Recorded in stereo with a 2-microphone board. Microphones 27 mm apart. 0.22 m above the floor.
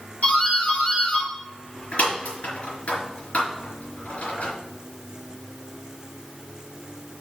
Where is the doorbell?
70° left (ahead or behind), 4 m.